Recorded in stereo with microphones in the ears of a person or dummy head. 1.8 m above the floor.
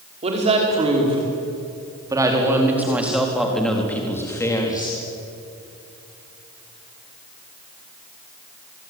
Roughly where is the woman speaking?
Right.